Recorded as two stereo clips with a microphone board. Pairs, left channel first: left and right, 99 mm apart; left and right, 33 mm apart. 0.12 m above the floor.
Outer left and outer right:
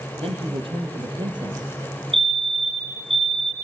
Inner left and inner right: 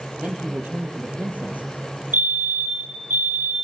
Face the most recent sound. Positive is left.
turn(degrees=-70)  # may be behind; listen again after turning